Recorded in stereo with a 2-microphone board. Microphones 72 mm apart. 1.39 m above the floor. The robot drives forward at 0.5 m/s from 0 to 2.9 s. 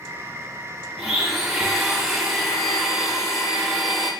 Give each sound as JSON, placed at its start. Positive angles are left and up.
{"t": 1.0, "sound": "a blender", "side_deg": 0, "distance_m": 1.1}